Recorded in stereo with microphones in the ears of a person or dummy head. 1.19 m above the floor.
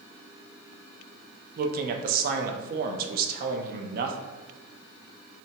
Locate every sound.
1.6 s a man speaking: 55° right (ahead or behind), 0.7 m